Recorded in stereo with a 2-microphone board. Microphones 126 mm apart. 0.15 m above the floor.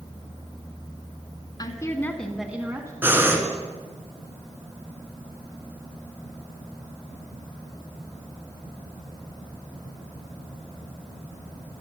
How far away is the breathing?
About 1.5 m.